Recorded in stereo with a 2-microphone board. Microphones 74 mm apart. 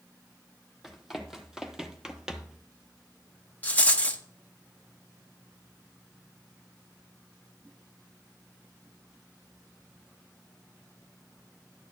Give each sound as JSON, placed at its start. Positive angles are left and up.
{"t": 0.8, "sound": "running footsteps", "side_deg": -5, "distance_m": 1.5}
{"t": 3.6, "sound": "a rattle", "side_deg": 20, "distance_m": 0.9}